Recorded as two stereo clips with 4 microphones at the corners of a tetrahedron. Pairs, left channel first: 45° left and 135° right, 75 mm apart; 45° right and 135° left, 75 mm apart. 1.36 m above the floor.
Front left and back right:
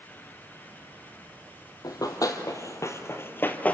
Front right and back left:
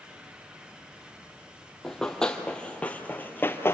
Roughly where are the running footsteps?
Ahead left.